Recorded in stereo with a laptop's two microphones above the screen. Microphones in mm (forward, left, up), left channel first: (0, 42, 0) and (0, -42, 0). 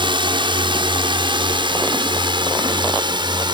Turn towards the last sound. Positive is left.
turn(degrees=-60)  # may be behind; listen again after turning